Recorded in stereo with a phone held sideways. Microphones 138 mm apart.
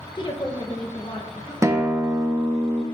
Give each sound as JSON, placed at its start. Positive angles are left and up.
{"t": 0.1, "sound": "a woman speaking", "side_deg": 35, "distance_m": 0.7}
{"t": 1.6, "sound": "a guitar", "side_deg": -20, "distance_m": 0.5}